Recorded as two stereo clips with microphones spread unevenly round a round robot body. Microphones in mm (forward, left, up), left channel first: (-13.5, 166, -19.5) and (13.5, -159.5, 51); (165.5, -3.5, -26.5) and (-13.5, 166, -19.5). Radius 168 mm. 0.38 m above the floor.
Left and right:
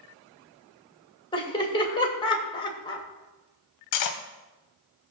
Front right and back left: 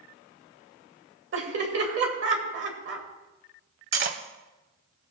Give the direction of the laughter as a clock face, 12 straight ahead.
7 o'clock.